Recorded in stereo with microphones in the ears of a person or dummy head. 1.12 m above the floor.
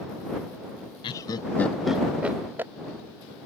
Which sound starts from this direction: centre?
Laughter, at 1.0 s.